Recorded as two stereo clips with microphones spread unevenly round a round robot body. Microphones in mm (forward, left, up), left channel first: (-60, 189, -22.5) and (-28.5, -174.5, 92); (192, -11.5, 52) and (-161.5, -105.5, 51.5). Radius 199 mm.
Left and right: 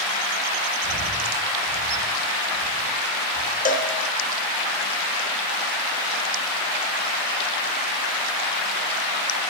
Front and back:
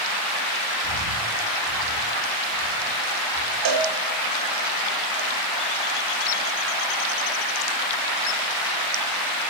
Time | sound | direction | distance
0.8 | breathing | 95° left | 7 m
3.6 | a cowbell | 150° left | 1.3 m